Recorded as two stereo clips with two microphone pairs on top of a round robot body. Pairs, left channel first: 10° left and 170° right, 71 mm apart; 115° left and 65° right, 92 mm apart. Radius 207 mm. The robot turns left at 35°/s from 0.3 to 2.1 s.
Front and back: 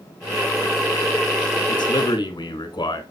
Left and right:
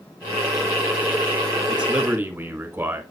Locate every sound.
1.7 s a man speaking: 20° left, 1.6 m; by 3.0 s 5° left, 1.6 m